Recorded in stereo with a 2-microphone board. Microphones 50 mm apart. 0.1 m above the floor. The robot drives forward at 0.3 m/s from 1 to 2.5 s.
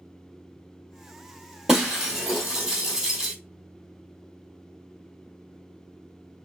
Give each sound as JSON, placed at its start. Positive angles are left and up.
{"t": 1.7, "sound": "breaking glass", "side_deg": -15, "distance_m": 1.6}